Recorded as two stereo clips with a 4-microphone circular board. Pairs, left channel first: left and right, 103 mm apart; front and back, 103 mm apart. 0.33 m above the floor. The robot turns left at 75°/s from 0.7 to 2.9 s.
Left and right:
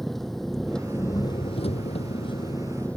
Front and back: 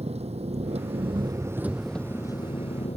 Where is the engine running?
175° left; by 3.0 s 10° left.